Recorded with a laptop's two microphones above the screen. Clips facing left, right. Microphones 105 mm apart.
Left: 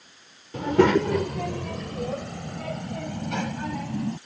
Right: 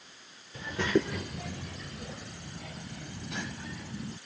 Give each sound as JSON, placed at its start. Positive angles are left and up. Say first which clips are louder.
{"t": 0.5, "sound": "a child speaking", "louder": "left 10 dB", "side_deg": 70}